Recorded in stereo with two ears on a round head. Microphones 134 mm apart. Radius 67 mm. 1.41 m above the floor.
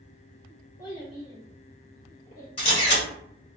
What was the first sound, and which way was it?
A child speaking, 25° left (ahead or behind).